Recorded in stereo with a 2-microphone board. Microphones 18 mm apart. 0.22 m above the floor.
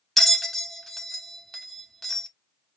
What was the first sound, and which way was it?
A bell, 15° left (ahead or behind).